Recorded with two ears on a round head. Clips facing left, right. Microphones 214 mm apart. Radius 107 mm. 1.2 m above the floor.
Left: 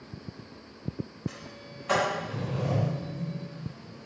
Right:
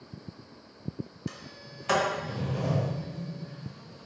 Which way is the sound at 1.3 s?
65° right (ahead or behind).